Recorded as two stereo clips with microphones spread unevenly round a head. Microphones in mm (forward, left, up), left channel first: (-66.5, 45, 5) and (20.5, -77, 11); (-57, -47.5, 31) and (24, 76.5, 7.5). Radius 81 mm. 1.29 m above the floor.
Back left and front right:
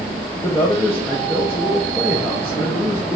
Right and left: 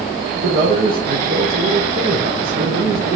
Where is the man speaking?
50° left, 0.9 m.